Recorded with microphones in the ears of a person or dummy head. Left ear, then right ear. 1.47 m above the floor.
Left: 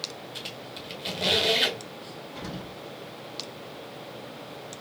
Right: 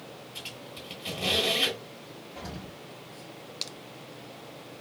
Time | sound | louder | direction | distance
0.3 | a squeak | left 1 dB | 35° left (ahead or behind) | 1.5 m
2.4 | an explosion | left 2 dB | 65° left (ahead or behind) | 2.5 m